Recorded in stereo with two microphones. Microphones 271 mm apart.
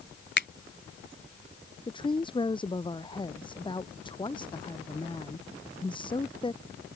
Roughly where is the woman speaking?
Centre.